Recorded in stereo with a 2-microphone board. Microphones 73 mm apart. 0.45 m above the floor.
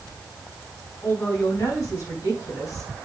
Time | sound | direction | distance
1.0 | a man speaking | 45° left (ahead or behind) | 4 m